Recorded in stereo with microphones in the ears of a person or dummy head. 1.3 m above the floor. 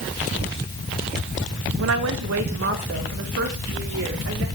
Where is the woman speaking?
65° right (ahead or behind), 1.2 m; by 4.5 s 55° right (ahead or behind), 4 m.